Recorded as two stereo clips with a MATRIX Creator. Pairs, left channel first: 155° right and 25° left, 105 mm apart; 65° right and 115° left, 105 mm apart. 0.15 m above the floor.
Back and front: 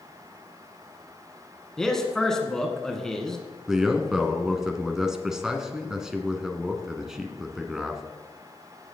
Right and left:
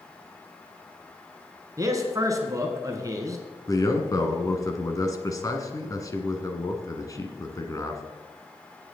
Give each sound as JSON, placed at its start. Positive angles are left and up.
{"t": 1.8, "sound": "a man speaking", "azimuth_deg": 120, "distance_m": 1.5}
{"t": 3.7, "sound": "a man speaking", "azimuth_deg": -60, "distance_m": 1.3}